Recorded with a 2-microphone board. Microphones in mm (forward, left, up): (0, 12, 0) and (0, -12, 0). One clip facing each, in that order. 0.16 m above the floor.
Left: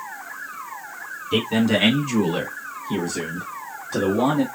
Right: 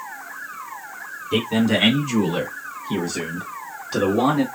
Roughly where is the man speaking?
Centre.